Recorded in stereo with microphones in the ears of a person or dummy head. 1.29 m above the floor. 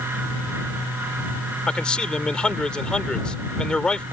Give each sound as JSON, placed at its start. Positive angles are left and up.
{"t": 1.7, "sound": "a man speaking", "side_deg": 5}